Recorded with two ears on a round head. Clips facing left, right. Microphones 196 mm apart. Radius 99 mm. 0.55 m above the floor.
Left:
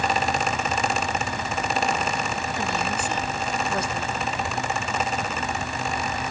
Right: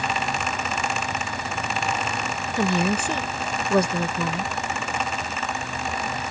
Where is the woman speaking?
65° right (ahead or behind).